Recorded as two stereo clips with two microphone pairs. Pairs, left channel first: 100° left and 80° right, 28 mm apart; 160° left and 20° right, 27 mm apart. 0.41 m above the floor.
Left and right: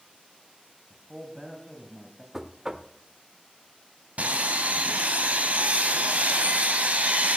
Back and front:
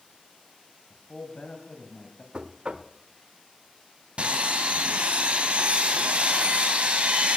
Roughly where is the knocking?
Ahead right.